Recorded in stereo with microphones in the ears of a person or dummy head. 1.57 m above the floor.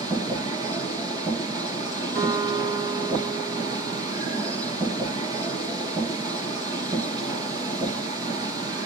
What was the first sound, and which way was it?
A machine running, 25° right (ahead or behind).